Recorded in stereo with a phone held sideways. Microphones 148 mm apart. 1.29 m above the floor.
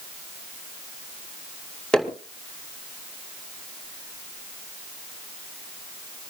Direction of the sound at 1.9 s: 5° left (ahead or behind).